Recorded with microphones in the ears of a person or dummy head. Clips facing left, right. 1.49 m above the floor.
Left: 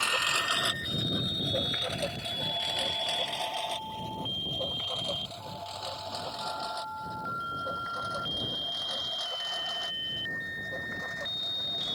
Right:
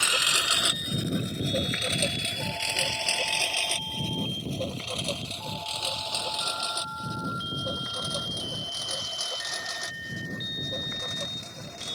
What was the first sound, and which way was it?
A lawn mower, 20° right (ahead or behind).